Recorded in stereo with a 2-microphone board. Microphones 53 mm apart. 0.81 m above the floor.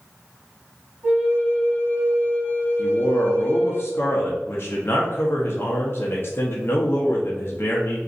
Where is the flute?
35° right (ahead or behind), 1.4 m.